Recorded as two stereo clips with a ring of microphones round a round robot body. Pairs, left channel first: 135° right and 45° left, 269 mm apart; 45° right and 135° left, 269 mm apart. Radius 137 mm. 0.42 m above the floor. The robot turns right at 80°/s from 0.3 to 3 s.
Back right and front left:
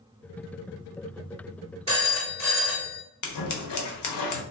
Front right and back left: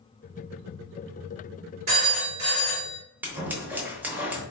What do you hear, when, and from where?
1.9 s a phone ringing: 115° left, 1.7 m; by 3.0 s 160° right, 1.7 m
3.2 s scissors: 140° right, 0.8 m